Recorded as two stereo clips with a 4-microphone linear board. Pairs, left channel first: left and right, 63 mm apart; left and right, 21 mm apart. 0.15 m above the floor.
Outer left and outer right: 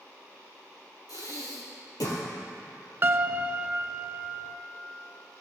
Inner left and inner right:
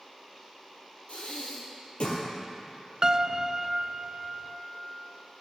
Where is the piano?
35° right (ahead or behind), 0.6 m.